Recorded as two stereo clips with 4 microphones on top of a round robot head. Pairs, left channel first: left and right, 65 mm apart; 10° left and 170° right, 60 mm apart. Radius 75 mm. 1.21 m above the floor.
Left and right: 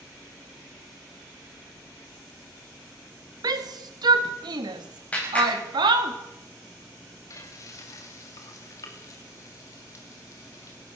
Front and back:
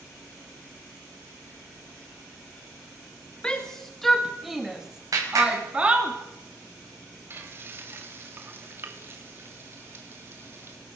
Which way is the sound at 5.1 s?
165° left.